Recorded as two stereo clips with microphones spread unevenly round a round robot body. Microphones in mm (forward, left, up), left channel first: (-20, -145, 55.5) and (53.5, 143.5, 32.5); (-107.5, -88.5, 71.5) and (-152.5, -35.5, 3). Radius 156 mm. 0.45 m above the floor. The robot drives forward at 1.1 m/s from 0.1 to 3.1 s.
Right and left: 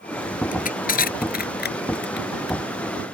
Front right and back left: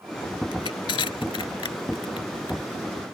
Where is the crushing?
40° right; by 2.6 s 50° right.